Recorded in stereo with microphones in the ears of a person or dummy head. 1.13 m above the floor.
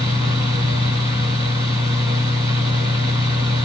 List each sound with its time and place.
0.0 s a fan: 15° right (ahead or behind), 1.0 m